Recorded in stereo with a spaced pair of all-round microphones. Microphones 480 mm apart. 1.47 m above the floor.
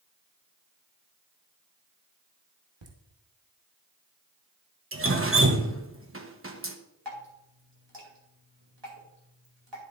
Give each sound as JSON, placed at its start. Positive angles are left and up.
{"t": 2.8, "sound": "laughter", "side_deg": -75, "distance_m": 1.5}
{"t": 4.9, "sound": "dripping", "side_deg": -30, "distance_m": 1.0}
{"t": 7.0, "sound": "dripping", "side_deg": -65, "distance_m": 2.5}